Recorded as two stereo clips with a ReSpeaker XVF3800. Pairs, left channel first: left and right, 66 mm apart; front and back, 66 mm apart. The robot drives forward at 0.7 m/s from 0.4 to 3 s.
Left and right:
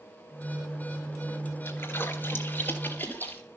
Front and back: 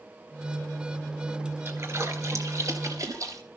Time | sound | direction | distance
1.6 | a splash | 140° left | 2.5 m